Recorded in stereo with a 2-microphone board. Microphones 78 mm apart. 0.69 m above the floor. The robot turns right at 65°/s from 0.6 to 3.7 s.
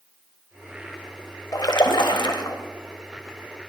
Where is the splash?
55° left, 1.4 m; by 2.6 s 125° left, 1.4 m.